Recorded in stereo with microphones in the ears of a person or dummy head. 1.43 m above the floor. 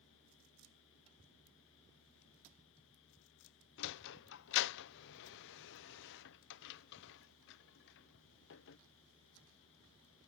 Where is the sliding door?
65° left (ahead or behind).